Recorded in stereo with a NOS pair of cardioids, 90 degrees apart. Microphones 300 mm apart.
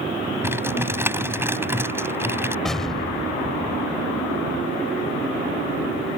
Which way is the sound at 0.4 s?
10° right.